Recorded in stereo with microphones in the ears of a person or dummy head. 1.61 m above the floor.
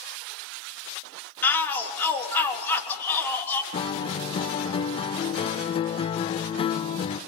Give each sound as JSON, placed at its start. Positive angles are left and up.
{"t": 1.4, "sound": "a shout", "side_deg": 15, "distance_m": 3.5}
{"t": 3.7, "sound": "a guitar", "side_deg": 25, "distance_m": 0.7}